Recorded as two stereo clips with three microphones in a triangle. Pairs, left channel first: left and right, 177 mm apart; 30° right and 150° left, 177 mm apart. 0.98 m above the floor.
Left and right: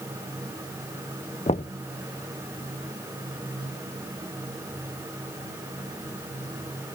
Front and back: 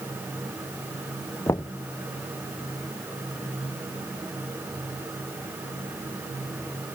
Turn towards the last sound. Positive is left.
turn(degrees=40)